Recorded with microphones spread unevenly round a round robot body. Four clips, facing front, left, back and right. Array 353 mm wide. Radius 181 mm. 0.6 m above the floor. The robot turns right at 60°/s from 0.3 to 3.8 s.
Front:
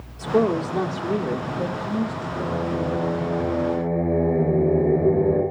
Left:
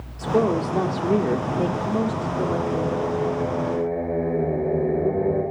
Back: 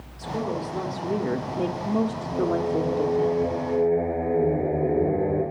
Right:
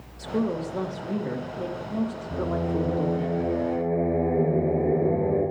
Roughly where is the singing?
Right.